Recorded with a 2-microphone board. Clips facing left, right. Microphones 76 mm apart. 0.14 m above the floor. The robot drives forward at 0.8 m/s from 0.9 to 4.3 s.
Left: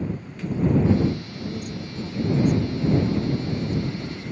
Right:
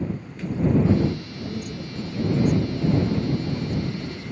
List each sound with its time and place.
1.4 s a woman speaking: 10° left (ahead or behind), 3.5 m; by 4.0 s 5° left (ahead or behind), 5.5 m